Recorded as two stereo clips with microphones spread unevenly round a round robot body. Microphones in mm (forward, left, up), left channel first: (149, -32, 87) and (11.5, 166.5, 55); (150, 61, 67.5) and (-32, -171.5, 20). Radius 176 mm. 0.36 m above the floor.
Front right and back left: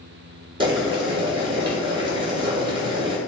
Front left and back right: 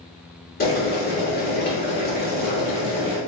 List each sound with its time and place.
0.6 s boiling: 95° left, 1.3 m